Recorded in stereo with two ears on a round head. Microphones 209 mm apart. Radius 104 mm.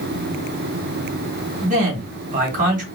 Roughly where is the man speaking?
Right.